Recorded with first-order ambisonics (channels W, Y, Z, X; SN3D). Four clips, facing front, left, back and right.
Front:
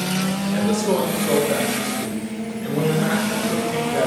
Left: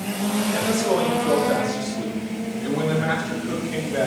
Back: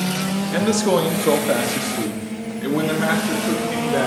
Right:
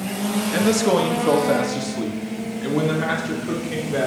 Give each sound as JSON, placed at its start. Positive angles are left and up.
{"t": 0.5, "sound": "a man speaking", "azimuth_deg": -145, "distance_m": 1.2}